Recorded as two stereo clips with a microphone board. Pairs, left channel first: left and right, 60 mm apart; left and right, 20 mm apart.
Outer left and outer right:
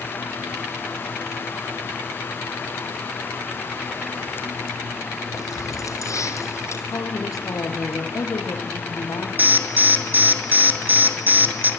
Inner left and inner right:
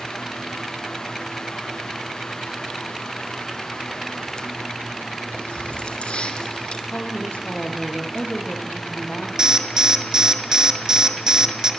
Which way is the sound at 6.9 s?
70° left (ahead or behind).